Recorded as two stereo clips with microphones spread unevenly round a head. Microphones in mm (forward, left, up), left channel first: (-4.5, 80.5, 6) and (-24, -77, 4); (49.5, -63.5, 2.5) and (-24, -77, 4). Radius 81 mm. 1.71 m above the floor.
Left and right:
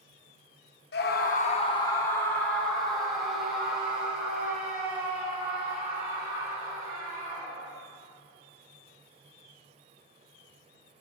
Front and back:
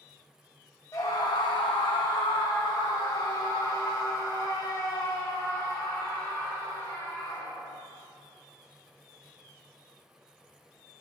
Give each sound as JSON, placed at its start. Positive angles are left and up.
{"t": 0.9, "sound": "a scream", "azimuth_deg": 75, "distance_m": 0.9}